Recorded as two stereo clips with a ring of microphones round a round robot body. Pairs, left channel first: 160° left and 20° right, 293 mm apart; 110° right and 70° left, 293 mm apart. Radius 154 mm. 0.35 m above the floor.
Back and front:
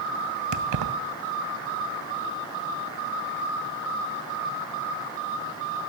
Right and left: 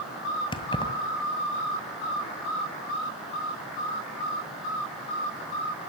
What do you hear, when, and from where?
0.5 s keys jangling: 40° right, 1.9 m